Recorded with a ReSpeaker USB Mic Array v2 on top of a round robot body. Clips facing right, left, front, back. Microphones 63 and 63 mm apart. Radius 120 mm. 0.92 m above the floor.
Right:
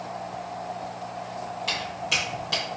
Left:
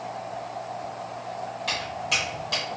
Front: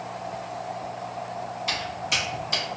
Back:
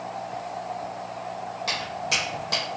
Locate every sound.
1.7 s footsteps: straight behind, 1.8 m